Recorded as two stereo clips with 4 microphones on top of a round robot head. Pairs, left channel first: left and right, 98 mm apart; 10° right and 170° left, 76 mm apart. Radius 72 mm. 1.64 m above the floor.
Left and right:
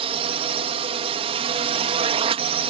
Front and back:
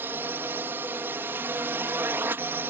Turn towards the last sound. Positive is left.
turn(degrees=-120)